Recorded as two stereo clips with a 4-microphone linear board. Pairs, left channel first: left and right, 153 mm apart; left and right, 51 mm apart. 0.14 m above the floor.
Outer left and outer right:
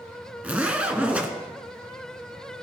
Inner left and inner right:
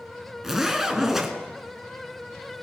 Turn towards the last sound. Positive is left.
turn(degrees=-10)  # may be behind; listen again after turning